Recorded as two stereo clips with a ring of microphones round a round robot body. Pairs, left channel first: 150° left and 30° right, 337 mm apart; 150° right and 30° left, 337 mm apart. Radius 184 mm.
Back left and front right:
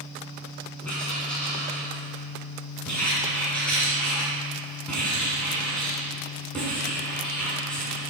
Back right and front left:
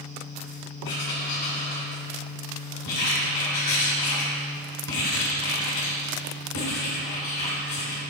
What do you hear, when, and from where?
0.8 s writing: 125° right, 2 m